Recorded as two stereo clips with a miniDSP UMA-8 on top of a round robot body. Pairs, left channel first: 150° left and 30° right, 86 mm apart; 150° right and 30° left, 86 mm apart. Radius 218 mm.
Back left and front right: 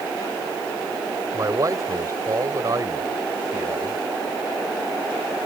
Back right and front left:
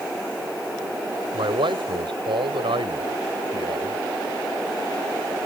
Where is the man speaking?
20° left.